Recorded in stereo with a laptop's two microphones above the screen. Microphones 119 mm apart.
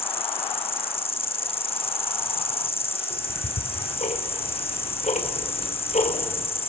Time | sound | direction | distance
0.0 | an insect | 50° left (ahead or behind) | 1.3 m
3.1 | ticking | 80° left | 4 m